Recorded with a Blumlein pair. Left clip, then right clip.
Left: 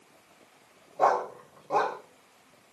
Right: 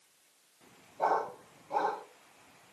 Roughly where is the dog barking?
Ahead left.